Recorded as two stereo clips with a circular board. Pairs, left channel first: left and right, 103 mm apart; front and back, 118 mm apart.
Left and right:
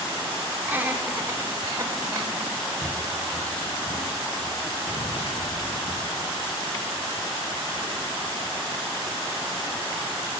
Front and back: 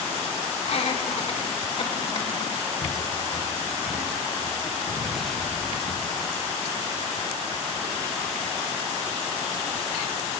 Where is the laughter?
20° right, 2 m; by 2.5 s 35° right, 4 m.